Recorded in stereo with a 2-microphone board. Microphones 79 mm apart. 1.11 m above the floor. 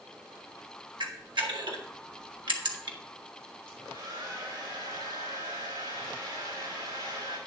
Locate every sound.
1.0 s a camera shutter: 85° right, 1.4 m
3.7 s a hair dryer: 90° right, 5 m